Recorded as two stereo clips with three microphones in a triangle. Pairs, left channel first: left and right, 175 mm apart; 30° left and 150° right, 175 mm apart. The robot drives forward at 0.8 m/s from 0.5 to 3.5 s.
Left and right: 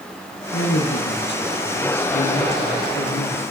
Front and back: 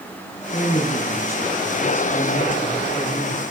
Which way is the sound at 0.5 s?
100° left.